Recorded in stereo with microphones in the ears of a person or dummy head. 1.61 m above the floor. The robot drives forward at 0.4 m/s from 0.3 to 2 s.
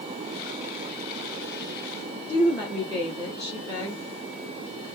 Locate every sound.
2.3 s a woman speaking: 15° left (ahead or behind), 1.6 m